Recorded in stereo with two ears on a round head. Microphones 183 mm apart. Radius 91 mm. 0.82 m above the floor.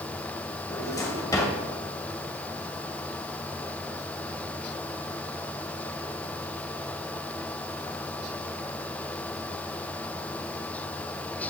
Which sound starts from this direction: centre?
A drawer, at 0.7 s.